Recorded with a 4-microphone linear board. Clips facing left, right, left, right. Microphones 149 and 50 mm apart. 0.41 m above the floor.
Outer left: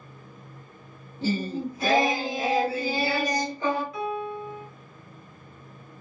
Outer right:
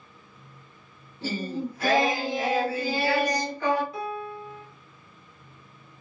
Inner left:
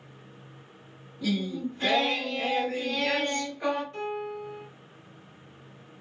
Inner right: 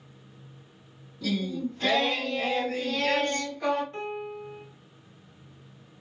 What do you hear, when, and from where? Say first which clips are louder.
1.2 s singing: outer left 3 dB, even; 15° left (ahead or behind), 1.7 m
3.9 s a piano: outer left 3 dB, inner left 2 dB; 30° right (ahead or behind), 1.0 m